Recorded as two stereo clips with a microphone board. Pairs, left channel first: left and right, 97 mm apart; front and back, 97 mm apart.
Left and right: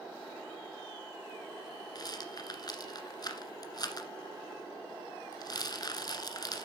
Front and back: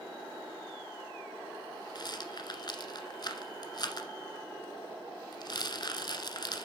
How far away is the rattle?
About 1.4 m.